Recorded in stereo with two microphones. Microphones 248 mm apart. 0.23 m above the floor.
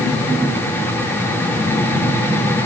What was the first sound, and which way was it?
Only background noise.